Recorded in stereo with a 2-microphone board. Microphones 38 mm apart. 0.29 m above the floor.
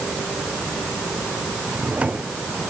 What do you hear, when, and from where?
1.7 s a drawer: 40° right (ahead or behind)